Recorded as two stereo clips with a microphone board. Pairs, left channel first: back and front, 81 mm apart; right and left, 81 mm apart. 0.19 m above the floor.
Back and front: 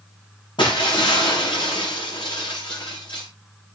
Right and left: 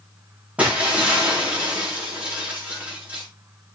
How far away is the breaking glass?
About 6.5 m.